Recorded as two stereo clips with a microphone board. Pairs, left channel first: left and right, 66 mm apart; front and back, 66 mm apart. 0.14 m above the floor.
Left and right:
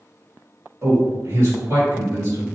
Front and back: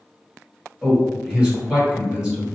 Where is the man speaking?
105° right, 1.6 m.